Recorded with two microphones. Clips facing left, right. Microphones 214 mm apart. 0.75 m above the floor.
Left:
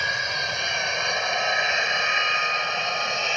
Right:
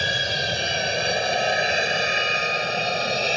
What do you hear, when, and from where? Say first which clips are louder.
0.0 s an aircraft: right 5 dB; 30° right (ahead or behind); by 3.4 s 35° right (ahead or behind)